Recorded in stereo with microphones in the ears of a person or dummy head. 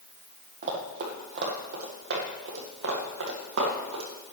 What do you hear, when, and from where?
0.6 s running footsteps: 45° right (ahead or behind), 2 m; by 4.0 s 50° right (ahead or behind), 2.5 m